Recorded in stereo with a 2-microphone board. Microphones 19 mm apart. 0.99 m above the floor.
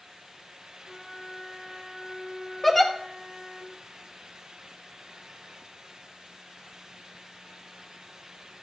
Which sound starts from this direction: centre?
A giggle, at 2.6 s.